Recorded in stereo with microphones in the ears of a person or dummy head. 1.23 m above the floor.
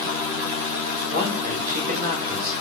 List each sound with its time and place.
1.1 s a man speaking: 50° right (ahead or behind), 5 m; by 2.5 s 45° right (ahead or behind), 4 m